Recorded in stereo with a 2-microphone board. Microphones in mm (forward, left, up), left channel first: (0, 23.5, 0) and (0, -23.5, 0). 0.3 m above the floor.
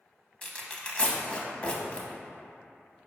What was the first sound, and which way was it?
Tearing paper, 25° left (ahead or behind).